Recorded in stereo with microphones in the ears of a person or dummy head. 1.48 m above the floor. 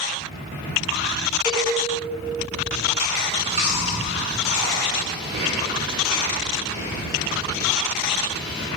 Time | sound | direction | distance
1.4 | a cowbell | 20° left (ahead or behind) | 1.1 m
3.2 | chewing | 45° right (ahead or behind) | 0.7 m